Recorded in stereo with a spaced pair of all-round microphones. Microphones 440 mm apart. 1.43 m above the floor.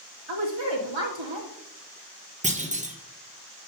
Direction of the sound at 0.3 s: 85° right.